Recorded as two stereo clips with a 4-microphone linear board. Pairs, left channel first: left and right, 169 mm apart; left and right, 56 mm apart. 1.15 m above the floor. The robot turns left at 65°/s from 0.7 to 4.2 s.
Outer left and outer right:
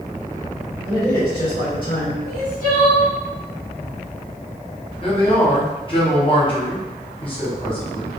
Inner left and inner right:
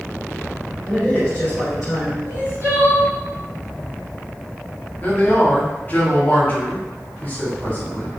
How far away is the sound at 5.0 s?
About 0.9 m.